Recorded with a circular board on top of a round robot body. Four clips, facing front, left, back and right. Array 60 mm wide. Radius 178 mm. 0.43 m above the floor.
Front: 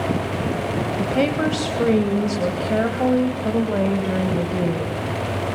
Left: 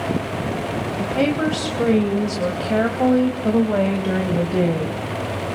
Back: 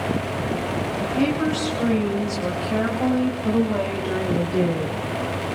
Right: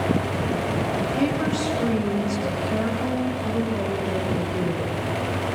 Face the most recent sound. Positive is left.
turn(degrees=85)